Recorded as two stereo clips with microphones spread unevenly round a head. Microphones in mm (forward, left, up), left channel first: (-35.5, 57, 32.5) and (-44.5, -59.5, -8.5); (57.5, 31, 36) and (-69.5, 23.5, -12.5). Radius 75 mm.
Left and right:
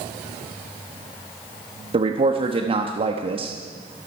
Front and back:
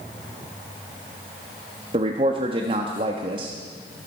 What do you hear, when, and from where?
1.9 s a man speaking: 125° right, 1.2 m